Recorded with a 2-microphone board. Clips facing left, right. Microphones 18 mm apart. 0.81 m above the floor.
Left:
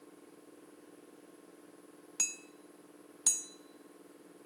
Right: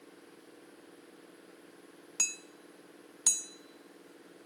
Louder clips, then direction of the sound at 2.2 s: Right 3 dB; 10° right (ahead or behind).